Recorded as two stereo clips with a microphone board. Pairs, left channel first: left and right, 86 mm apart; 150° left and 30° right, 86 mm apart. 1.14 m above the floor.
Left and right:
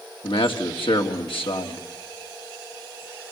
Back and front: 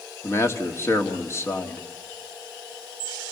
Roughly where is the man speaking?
Left.